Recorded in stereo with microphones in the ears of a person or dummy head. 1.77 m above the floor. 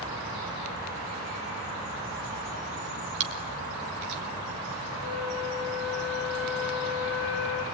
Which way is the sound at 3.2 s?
55° right (ahead or behind).